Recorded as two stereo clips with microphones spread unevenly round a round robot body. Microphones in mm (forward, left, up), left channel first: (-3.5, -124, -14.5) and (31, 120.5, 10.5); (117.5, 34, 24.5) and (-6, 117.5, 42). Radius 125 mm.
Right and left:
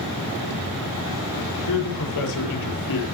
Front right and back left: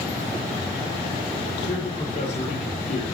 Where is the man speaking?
90° right, 7.5 m.